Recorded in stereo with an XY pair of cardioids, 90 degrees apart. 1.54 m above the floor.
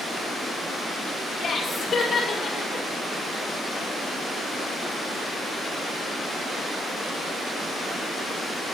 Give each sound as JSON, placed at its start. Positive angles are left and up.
{"t": 1.4, "sound": "laughter", "azimuth_deg": 45, "distance_m": 5.0}